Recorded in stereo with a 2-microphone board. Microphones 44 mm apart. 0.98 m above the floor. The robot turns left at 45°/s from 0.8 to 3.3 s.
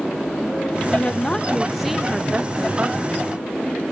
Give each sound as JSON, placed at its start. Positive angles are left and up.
{"t": 0.9, "sound": "a woman speaking", "azimuth_deg": 35, "distance_m": 0.7}